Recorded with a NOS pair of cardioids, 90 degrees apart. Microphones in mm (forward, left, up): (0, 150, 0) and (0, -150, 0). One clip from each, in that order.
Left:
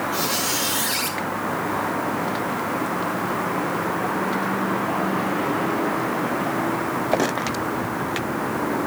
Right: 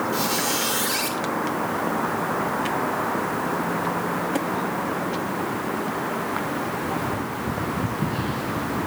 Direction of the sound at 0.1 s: Straight ahead.